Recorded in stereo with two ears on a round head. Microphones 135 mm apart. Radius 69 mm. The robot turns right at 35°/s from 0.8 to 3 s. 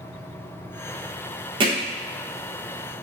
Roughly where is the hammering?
Right.